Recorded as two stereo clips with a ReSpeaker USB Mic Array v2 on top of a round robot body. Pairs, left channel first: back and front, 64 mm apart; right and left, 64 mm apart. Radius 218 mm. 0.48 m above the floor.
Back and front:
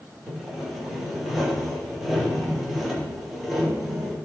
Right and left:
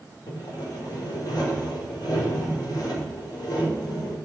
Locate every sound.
0.3 s sawing: 90° right, 2 m